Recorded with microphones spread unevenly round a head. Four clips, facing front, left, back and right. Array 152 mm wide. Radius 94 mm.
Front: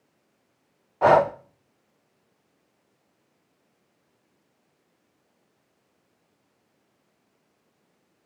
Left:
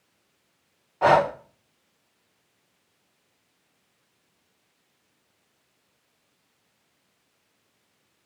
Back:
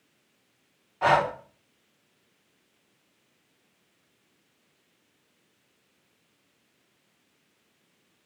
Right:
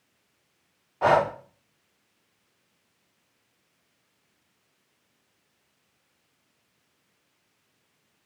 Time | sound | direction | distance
1.0 | breathing | 10° left | 0.5 m